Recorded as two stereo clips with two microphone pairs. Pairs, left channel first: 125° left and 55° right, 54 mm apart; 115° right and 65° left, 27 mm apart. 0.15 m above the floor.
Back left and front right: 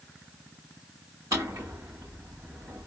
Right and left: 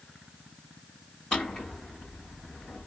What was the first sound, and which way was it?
A drawer, 65° right.